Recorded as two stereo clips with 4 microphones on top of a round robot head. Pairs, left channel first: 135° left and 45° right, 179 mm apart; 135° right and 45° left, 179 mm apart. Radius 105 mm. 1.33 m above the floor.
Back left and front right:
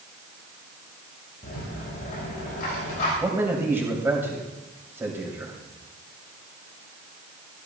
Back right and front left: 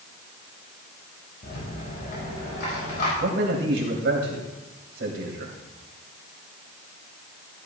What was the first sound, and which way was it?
A rattle, 175° right.